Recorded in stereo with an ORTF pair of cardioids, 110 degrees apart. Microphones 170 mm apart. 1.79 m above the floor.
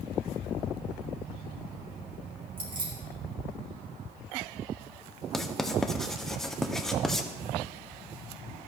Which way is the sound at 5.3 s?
5° left.